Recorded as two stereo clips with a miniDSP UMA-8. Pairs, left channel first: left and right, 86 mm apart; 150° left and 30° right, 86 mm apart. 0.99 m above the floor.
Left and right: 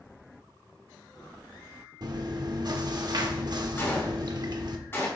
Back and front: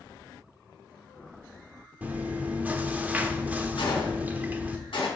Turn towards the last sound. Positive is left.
turn(degrees=155)